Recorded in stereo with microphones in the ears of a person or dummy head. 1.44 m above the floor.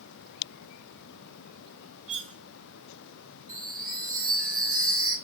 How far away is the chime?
About 5 m.